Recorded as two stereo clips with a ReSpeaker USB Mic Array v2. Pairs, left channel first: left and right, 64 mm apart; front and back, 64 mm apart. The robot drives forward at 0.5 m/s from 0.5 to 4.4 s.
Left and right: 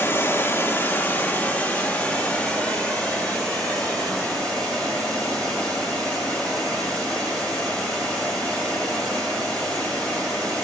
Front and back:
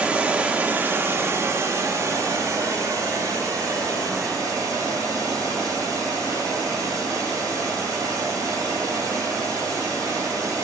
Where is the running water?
115° left, 0.7 m; by 10.6 s 170° left, 2.5 m.